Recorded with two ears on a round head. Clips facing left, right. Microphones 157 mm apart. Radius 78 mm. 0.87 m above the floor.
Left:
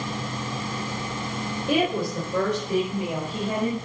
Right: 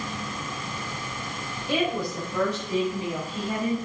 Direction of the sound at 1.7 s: 55° left (ahead or behind).